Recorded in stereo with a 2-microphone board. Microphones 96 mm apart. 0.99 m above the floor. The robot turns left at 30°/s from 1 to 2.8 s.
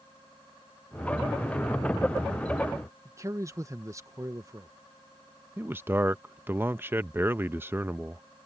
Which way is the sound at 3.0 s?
30° right (ahead or behind).